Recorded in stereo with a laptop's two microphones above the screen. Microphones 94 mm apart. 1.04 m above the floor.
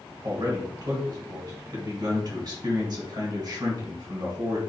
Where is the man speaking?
45° right (ahead or behind), 1.5 m.